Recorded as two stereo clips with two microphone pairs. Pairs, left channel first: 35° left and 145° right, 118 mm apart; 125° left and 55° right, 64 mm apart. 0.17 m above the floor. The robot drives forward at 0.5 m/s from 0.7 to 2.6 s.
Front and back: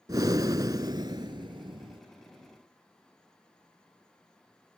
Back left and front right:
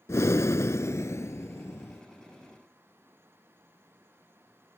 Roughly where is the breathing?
Behind.